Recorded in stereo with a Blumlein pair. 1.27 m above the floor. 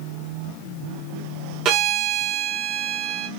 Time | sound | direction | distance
1.6 | a violin | 35° right | 1.0 m